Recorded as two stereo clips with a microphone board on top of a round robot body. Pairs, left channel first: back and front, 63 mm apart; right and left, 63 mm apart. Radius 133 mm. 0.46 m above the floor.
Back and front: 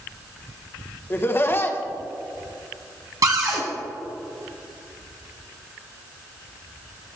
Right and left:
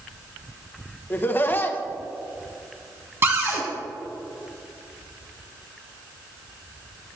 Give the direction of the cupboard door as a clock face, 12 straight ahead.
11 o'clock.